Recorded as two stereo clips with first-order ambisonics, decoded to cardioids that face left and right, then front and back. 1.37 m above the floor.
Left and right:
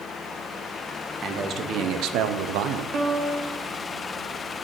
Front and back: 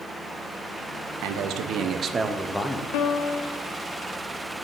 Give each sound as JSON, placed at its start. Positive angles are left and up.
{"t": 1.2, "sound": "a man speaking", "azimuth_deg": -150, "distance_m": 0.8}
{"t": 2.9, "sound": "a piano", "azimuth_deg": -25, "distance_m": 0.7}